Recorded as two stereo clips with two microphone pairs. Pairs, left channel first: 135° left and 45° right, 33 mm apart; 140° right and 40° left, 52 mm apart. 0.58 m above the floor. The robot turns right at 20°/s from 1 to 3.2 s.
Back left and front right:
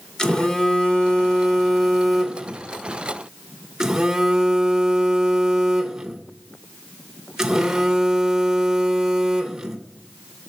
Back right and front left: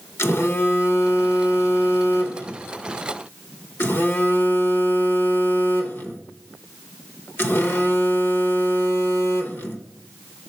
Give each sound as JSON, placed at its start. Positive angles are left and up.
{"t": 0.2, "sound": "a phone buzzing", "azimuth_deg": -155, "distance_m": 0.9}